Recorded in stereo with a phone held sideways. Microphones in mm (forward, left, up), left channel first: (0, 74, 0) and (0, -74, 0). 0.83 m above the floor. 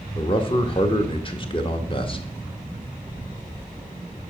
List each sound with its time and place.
0.1 s a man speaking: 35° left (ahead or behind), 1.0 m